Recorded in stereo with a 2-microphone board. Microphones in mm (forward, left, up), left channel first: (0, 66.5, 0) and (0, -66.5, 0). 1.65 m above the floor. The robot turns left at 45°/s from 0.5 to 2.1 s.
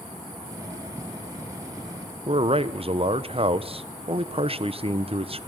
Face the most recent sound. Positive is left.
turn(degrees=-45)  # may be behind; listen again after turning